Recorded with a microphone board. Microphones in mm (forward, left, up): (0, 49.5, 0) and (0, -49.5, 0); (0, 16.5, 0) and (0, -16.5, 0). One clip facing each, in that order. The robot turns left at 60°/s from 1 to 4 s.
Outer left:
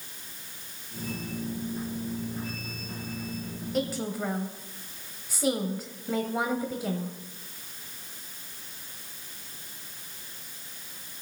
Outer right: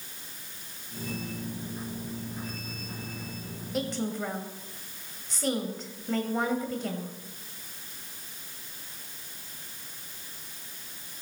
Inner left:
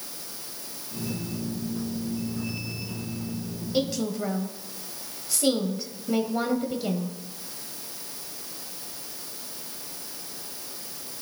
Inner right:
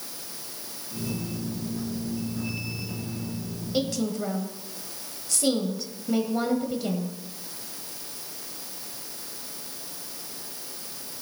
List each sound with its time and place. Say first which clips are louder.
3.7 s a woman speaking: outer left 1 dB, even; centre (ahead or behind), 1.1 m; by 7.1 s 5° left (ahead or behind), 1.1 m